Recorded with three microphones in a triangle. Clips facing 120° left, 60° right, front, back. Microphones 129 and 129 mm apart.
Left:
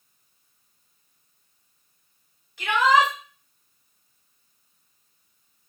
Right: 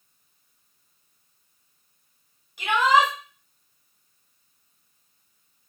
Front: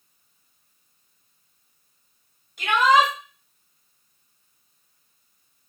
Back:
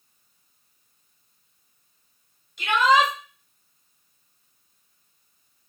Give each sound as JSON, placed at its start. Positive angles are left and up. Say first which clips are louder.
{"t": 2.6, "sound": "a shout", "louder": "even, front 1 dB", "azimuth_deg": 5, "distance_m": 1.7}